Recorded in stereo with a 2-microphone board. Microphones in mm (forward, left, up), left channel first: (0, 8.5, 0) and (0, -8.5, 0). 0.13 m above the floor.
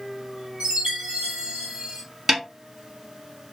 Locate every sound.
0.6 s a chime: 60° right (ahead or behind), 1.3 m
2.3 s a snare drum: 25° right (ahead or behind), 1.1 m